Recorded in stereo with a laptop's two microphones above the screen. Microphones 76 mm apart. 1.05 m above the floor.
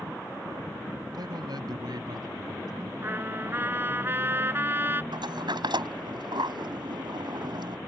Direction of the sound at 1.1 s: 60° right (ahead or behind).